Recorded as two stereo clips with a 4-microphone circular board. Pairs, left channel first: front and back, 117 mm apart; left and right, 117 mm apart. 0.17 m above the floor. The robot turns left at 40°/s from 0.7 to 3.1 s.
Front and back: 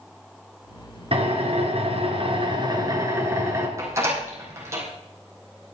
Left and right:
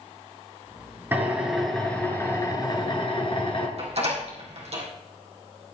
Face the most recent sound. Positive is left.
turn(degrees=-115)